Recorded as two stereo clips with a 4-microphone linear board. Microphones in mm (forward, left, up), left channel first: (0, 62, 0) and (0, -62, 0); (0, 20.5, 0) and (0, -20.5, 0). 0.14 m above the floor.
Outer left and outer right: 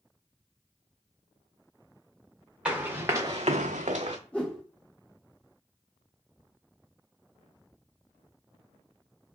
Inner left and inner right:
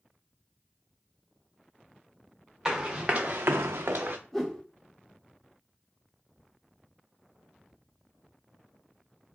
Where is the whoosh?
10° left (ahead or behind), 2.0 m.